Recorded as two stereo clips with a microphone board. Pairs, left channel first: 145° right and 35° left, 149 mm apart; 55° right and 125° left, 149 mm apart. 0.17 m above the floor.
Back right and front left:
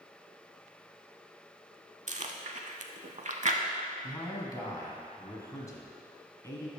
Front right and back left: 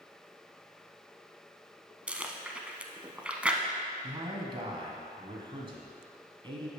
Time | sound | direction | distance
2.1 | chewing | 45° left | 0.6 m
4.0 | a man speaking | 160° left | 1.4 m